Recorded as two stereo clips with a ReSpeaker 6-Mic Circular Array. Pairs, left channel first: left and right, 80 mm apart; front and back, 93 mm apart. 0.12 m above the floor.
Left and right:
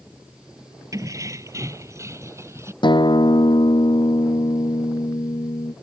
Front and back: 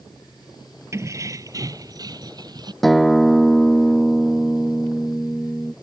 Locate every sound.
0.9 s keys jangling: 125° right; by 2.7 s 140° right
2.8 s a guitar: 90° left